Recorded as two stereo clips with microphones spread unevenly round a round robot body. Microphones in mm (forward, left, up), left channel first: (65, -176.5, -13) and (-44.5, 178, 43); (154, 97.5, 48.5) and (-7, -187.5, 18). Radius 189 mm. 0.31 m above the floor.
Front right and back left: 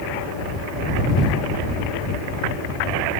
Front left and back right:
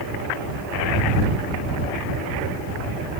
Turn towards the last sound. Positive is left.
No sound to turn to.